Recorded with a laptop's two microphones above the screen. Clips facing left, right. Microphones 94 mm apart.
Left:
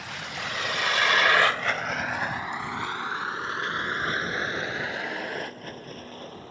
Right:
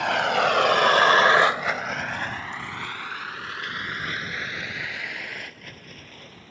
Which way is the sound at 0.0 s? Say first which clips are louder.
Right 15 dB; 85° right.